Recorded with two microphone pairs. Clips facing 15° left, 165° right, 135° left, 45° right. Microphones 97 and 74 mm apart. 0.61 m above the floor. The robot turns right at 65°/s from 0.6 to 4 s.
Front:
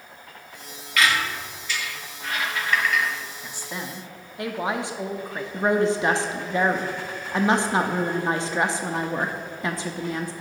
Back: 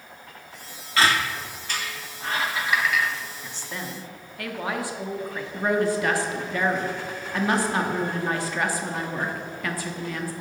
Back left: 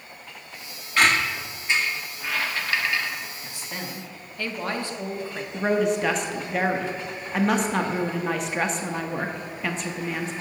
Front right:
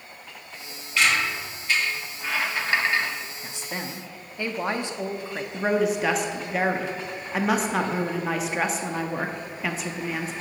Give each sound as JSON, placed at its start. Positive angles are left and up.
{"t": 1.0, "sound": "a squeak", "azimuth_deg": 150, "distance_m": 0.5}
{"t": 3.4, "sound": "a woman speaking", "azimuth_deg": -55, "distance_m": 0.5}
{"t": 5.5, "sound": "a woman speaking", "azimuth_deg": 30, "distance_m": 0.6}